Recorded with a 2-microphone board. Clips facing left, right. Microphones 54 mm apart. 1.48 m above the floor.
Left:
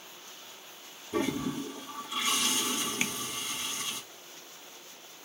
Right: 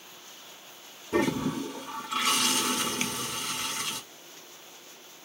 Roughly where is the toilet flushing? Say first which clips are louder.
Right 4 dB; right.